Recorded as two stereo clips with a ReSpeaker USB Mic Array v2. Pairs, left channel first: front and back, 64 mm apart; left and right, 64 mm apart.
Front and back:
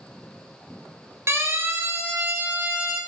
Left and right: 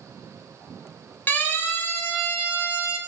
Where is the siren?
140° left, 3.5 m; by 3.0 s 130° left, 5.5 m.